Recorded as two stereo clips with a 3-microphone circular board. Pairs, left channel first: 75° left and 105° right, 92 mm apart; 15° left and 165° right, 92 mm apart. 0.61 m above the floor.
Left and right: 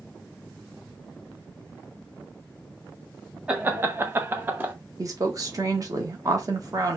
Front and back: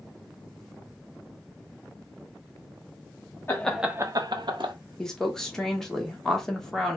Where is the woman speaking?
65° right, 1.1 m.